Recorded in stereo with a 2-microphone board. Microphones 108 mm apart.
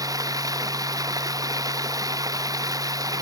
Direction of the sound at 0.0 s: 35° right (ahead or behind).